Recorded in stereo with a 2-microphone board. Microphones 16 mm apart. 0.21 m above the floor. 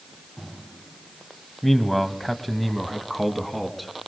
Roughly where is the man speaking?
Centre.